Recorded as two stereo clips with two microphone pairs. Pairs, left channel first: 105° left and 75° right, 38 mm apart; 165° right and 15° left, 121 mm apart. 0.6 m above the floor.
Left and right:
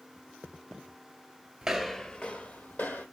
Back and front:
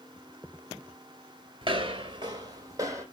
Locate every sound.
1.6 s footsteps: 5° right, 0.7 m; by 3.0 s 80° left, 1.5 m